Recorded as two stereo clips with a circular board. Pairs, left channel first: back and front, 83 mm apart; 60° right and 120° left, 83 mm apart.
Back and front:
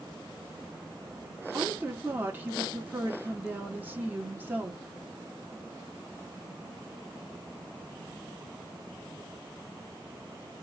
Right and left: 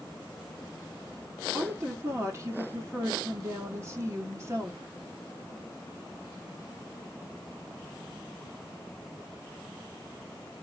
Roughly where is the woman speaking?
Ahead left.